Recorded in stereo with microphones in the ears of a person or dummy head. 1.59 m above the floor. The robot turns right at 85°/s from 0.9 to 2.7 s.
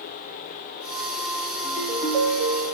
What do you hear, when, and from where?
1.6 s a ringtone: 150° left, 2.5 m; by 2.8 s 115° right, 2.5 m